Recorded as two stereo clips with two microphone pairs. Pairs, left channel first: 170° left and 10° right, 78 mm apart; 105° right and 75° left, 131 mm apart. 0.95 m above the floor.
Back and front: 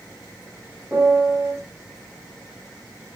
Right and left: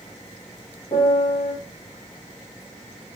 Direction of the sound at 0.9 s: 70° right.